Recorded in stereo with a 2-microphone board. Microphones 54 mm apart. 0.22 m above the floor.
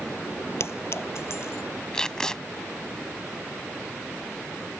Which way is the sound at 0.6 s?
55° left (ahead or behind).